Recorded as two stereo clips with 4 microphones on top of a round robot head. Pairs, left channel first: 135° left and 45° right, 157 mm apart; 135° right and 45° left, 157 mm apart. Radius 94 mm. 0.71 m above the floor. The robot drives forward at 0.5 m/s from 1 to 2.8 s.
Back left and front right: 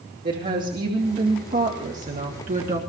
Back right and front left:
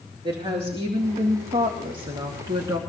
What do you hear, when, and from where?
0.2 s a woman speaking: 10° right, 2 m; by 2.8 s 20° right, 1.4 m